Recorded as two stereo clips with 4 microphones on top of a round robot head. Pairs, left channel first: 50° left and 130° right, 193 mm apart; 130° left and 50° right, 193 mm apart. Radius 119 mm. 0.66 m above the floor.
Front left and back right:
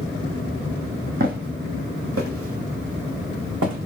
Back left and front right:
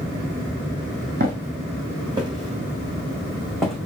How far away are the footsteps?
About 1.1 m.